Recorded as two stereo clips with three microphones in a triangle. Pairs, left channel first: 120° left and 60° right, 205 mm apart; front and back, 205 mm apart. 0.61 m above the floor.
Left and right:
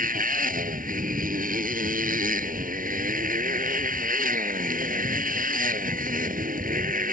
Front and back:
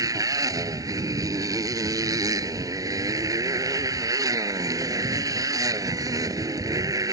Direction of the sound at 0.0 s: 105° right.